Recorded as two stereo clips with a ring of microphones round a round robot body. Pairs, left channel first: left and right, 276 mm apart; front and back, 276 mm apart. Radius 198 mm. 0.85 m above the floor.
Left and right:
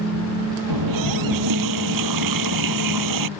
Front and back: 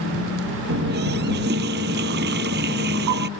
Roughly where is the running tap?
Behind right.